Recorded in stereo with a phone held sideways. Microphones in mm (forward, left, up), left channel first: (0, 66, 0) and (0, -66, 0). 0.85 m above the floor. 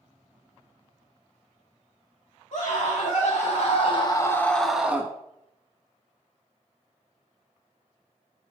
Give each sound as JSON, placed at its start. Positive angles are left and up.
{"t": 2.5, "sound": "a scream", "side_deg": 65, "distance_m": 2.0}